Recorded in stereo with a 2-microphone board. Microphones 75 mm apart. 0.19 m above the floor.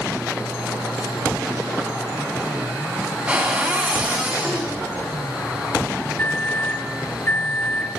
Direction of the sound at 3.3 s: 15° right (ahead or behind).